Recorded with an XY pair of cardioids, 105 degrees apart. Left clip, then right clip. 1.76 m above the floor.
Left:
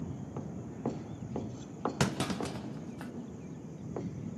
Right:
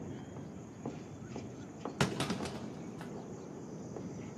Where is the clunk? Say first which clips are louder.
Right 1 dB; 25° left, 1.1 m.